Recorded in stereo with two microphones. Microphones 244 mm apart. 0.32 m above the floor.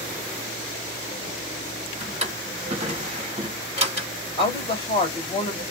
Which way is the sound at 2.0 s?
30° right (ahead or behind).